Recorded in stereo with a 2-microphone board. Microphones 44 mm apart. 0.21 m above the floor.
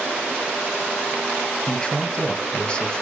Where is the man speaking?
20° left (ahead or behind), 1.2 m.